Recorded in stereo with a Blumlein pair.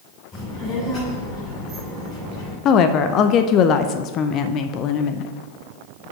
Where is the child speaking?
30° left, 3 m.